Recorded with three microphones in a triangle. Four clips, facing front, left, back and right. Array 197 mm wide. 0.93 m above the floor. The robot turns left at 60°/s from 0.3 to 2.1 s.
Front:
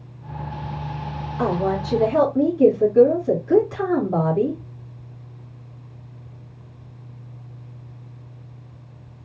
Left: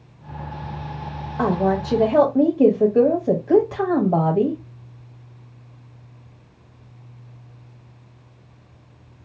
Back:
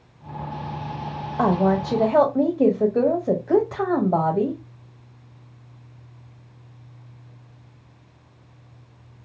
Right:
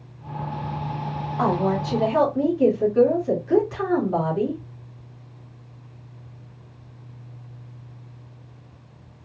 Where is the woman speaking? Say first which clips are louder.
Left 2 dB, back 2 dB; 170° left, 1.5 m; by 4.6 s 130° left, 1.5 m.